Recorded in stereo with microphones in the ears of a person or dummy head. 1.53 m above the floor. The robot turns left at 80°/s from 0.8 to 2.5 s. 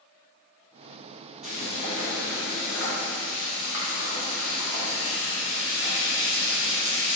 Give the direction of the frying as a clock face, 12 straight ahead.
6 o'clock.